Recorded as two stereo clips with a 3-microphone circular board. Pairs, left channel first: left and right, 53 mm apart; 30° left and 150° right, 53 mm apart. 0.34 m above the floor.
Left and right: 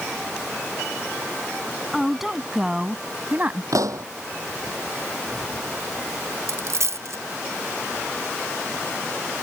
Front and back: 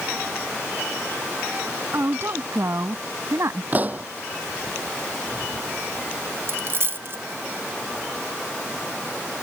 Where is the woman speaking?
Straight behind; by 3.6 s 140° right.